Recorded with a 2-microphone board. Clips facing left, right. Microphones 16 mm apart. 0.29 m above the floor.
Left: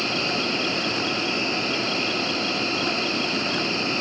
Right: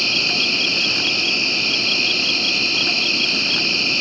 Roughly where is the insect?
Right.